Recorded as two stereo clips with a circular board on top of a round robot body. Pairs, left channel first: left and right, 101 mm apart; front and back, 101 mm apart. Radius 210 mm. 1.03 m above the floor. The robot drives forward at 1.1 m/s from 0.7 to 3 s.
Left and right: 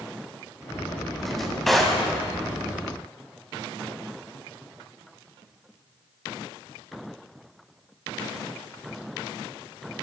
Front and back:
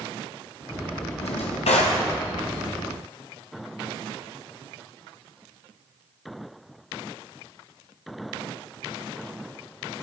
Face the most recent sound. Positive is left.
turn(degrees=10)